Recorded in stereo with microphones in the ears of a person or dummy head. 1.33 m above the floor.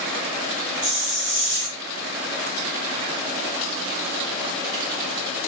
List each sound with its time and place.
0.8 s a hiss: 25° right (ahead or behind), 1.4 m